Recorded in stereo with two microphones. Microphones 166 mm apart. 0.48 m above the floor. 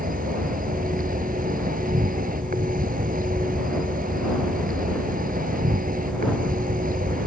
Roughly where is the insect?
Right.